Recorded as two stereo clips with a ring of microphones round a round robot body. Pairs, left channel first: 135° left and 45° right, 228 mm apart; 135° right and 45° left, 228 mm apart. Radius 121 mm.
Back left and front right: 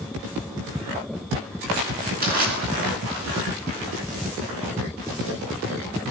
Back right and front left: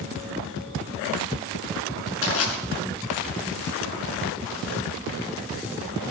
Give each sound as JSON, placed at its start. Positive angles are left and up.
{"t": 2.2, "sound": "crushing", "azimuth_deg": -100, "distance_m": 5.5}